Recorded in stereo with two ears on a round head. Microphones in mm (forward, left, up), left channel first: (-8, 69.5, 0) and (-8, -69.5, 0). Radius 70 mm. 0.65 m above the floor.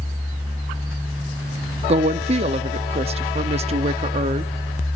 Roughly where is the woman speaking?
Right.